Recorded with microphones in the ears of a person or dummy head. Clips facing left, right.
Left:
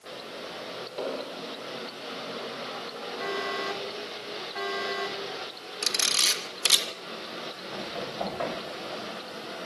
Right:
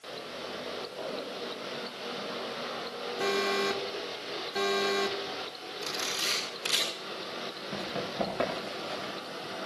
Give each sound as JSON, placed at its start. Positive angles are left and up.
{"t": 1.0, "sound": "an explosion", "side_deg": 70, "distance_m": 2.5}
{"t": 3.2, "sound": "an alarm", "side_deg": -35, "distance_m": 2.5}
{"t": 5.8, "sound": "a camera shutter", "side_deg": 75, "distance_m": 2.5}
{"t": 7.7, "sound": "running footsteps", "side_deg": -30, "distance_m": 9.5}